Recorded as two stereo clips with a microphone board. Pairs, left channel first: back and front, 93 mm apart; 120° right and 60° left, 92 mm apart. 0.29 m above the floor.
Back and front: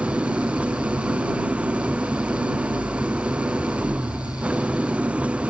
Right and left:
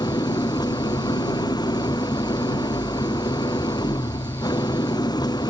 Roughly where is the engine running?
Right.